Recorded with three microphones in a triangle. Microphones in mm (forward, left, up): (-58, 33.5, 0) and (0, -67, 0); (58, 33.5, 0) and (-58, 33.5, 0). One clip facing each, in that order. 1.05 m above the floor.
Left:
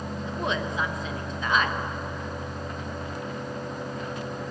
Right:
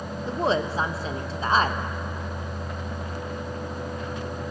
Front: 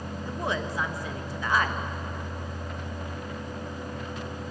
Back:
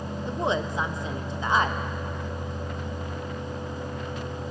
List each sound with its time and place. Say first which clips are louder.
0.3 s a woman speaking: right 6 dB, back 4 dB; 115° right, 0.9 m